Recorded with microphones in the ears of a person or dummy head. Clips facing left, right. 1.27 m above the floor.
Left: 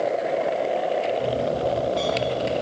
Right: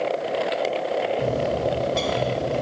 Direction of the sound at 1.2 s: 65° right (ahead or behind).